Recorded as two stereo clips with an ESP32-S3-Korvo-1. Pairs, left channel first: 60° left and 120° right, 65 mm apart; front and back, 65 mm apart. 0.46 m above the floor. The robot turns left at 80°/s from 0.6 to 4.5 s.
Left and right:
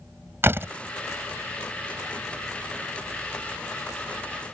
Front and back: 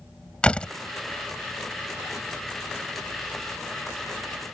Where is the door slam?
75° right; by 0.7 s 85° right.